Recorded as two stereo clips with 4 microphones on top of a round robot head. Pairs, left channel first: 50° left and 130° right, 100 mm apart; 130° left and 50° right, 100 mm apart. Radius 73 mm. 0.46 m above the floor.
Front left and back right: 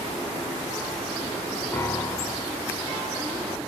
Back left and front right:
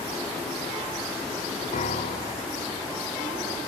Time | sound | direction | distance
1.7 | a piano | 120° left | 1.4 m